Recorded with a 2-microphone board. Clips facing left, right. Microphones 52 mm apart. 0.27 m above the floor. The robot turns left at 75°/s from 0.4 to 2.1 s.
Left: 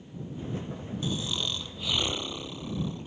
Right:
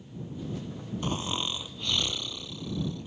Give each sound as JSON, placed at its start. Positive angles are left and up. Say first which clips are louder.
{"t": 1.0, "sound": "snoring", "louder": "right 1 dB", "azimuth_deg": -125}